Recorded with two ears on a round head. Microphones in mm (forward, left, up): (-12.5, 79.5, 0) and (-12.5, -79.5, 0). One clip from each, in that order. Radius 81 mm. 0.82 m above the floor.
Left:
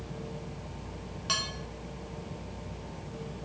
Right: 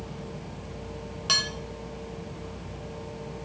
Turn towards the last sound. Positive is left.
turn(degrees=-20)  # may be behind; listen again after turning